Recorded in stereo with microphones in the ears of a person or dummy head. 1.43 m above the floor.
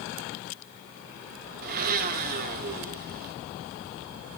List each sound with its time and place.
1.6 s a blender: 50° right (ahead or behind), 0.9 m